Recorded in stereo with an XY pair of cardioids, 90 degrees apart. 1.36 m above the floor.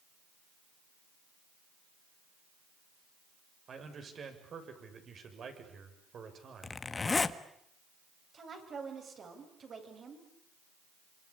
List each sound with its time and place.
3.7 s a man speaking: 55° right, 7 m
6.6 s a zipper: 30° left, 1.6 m
8.3 s a woman speaking: 50° right, 8.5 m